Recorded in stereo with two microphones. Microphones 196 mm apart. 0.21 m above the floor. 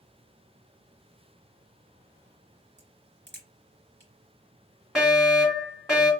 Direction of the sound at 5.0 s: Centre (ahead or behind).